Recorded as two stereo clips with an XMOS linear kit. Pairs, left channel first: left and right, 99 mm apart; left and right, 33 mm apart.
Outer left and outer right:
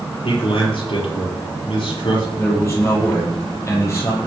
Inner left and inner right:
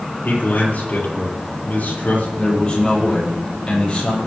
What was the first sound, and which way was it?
A man speaking, 60° left (ahead or behind).